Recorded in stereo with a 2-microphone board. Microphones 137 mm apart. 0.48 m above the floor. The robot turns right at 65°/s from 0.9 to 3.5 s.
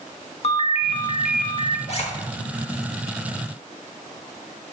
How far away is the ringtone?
About 0.6 m.